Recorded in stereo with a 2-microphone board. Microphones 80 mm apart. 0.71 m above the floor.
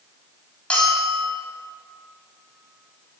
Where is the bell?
15° left (ahead or behind), 2.5 m.